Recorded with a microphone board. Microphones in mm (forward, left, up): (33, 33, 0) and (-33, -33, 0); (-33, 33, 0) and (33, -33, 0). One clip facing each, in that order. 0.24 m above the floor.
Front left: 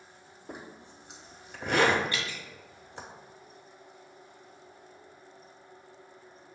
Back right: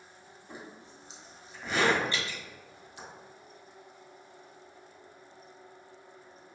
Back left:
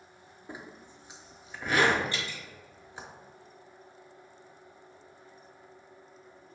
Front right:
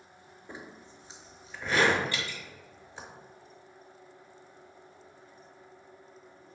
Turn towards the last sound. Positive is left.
turn(degrees=180)